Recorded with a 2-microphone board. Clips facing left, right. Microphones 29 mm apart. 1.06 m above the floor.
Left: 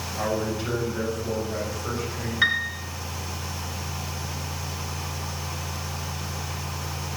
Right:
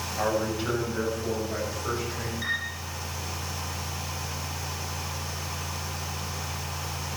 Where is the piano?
55° left (ahead or behind), 2.5 m.